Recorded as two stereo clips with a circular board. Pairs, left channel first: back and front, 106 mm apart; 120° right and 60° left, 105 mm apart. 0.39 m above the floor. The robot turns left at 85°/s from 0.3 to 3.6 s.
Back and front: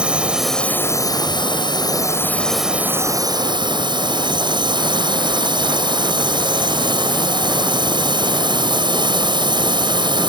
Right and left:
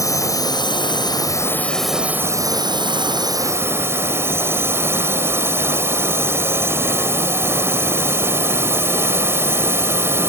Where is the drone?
75° right; by 10.3 s 5° left.